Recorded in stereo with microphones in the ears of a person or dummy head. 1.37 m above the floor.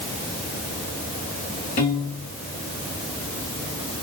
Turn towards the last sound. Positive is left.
turn(degrees=35)  # may be behind; listen again after turning